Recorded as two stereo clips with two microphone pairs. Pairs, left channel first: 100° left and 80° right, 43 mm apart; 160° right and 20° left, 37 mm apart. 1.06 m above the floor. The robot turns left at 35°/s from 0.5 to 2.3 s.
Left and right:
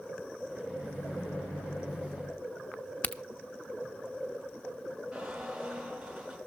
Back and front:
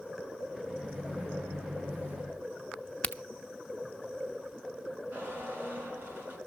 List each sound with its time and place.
0.7 s a microwave: 100° left, 10 m; by 2.4 s 40° left, 10 m
3.0 s a crack: 145° left, 0.9 m
5.1 s a squeak: straight ahead, 8 m